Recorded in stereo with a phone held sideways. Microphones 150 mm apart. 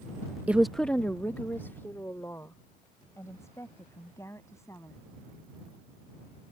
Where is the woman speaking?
10° right (ahead or behind); by 5.0 s 20° left (ahead or behind).